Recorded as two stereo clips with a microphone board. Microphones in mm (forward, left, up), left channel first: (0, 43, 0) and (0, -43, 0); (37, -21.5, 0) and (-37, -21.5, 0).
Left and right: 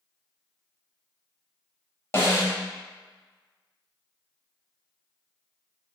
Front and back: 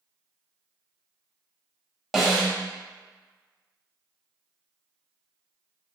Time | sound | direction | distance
2.1 | a snare drum | 95° left | 0.6 m